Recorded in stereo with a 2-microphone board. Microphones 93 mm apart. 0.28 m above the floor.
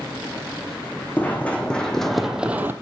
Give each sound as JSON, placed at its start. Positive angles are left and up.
{"t": 1.2, "sound": "running footsteps", "side_deg": 15, "distance_m": 1.1}